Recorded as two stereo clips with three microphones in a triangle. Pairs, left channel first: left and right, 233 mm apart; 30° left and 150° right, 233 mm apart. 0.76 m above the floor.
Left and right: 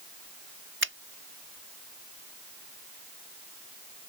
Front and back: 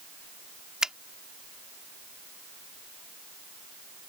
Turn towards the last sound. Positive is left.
turn(degrees=-65)